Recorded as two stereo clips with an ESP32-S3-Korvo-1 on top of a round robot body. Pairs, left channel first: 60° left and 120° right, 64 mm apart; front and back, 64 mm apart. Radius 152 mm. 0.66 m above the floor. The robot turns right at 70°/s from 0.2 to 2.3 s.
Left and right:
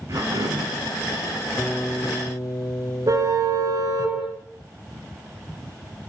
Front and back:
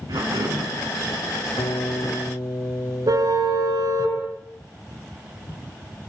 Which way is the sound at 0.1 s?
160° right.